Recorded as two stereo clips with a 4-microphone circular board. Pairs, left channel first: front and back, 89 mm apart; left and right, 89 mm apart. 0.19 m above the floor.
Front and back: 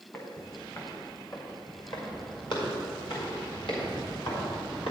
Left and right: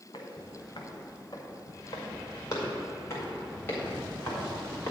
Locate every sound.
0.1 s footsteps: 55° left, 2.5 m; by 4.9 s 20° left, 4.5 m